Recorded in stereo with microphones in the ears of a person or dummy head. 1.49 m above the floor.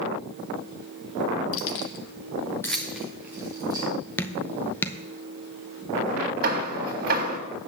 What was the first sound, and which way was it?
Keys jangling, 70° left (ahead or behind).